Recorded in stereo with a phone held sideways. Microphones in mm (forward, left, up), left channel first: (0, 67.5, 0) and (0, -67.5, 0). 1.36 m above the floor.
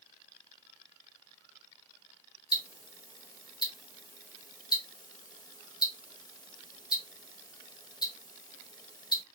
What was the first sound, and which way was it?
Ticking, 30° left (ahead or behind).